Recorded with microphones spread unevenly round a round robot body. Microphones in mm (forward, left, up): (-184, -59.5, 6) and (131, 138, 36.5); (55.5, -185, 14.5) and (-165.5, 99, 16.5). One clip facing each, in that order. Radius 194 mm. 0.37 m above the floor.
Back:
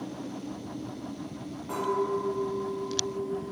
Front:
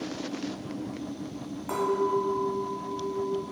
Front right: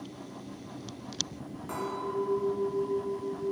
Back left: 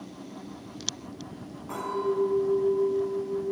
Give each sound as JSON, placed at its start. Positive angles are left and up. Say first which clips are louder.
{"t": 1.7, "sound": "a clink", "louder": "front 3 dB, back left 6 dB", "azimuth_deg": 0, "distance_m": 1.7}